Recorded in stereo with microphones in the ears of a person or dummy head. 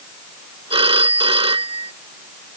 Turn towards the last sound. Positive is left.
turn(degrees=-30)  # may be behind; listen again after turning